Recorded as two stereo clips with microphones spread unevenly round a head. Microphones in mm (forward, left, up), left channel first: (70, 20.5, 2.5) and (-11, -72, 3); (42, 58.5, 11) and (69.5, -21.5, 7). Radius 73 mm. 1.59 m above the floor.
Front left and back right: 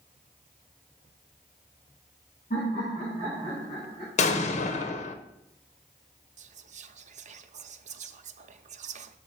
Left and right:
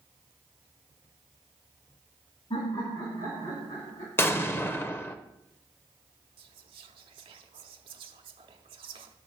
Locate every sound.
2.5 s laughter: 95° left, 3.5 m; by 4.1 s 110° left, 4 m
4.2 s an explosion: 50° left, 0.7 m
6.4 s whispering: 105° right, 0.7 m